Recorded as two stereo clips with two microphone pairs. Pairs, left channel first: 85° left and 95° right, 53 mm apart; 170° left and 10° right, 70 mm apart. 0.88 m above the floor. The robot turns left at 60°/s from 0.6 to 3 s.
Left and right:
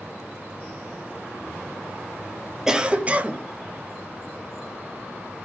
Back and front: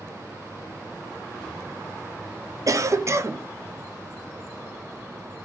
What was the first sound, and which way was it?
A cough, 15° right.